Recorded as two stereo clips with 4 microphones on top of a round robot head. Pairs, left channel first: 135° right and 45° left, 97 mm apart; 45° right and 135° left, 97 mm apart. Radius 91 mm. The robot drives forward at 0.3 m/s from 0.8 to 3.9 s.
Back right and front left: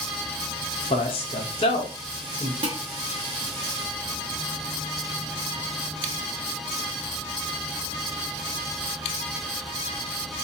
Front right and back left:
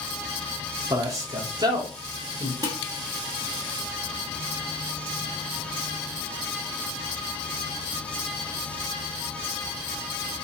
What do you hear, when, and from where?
0.9 s a man speaking: 165° right, 0.5 m; by 2.5 s 175° right, 1.0 m
2.6 s dishes clattering: 85° left, 0.9 m; by 2.8 s 90° left, 0.9 m